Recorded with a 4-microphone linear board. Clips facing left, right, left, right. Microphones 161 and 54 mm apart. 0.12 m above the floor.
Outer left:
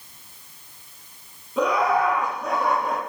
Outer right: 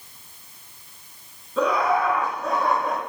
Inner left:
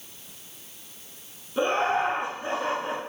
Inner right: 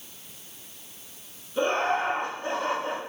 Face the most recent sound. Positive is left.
turn(degrees=15)  # may be behind; listen again after turning